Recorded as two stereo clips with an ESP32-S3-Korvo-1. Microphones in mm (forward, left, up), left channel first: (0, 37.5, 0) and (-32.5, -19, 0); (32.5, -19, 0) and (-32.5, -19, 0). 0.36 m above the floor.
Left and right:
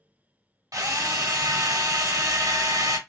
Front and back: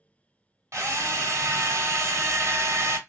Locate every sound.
0.7 s a drill: 140° right, 0.8 m